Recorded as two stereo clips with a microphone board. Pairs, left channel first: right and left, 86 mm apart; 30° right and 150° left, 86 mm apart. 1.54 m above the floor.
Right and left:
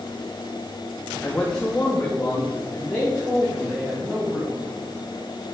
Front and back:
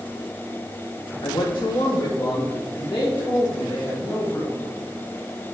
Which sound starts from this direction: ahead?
A man speaking, at 1.2 s.